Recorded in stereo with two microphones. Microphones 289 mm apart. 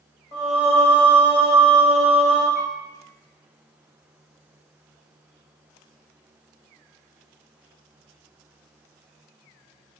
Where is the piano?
60° left (ahead or behind), 0.5 m.